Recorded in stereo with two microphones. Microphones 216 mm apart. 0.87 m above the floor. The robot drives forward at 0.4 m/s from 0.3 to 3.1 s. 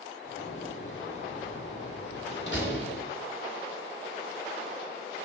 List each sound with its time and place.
0.4 s a door slam: 70° left (ahead or behind), 1.3 m; by 3.0 s 50° left (ahead or behind), 1.5 m